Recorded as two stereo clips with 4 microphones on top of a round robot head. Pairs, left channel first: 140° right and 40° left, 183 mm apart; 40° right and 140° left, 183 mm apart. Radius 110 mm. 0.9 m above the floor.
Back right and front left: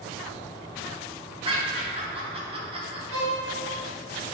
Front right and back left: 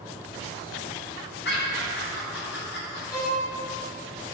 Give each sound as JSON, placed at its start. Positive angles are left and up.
{"t": 1.4, "sound": "laughter", "azimuth_deg": -20, "distance_m": 3.0}
{"t": 3.1, "sound": "a violin", "azimuth_deg": 35, "distance_m": 3.0}